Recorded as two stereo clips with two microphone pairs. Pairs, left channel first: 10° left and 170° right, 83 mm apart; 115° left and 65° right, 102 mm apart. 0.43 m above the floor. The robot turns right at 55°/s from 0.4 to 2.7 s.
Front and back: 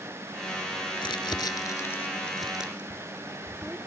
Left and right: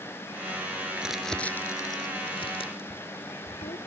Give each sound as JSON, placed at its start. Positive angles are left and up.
{"t": 1.0, "sound": "crumpling", "azimuth_deg": 15, "distance_m": 1.0}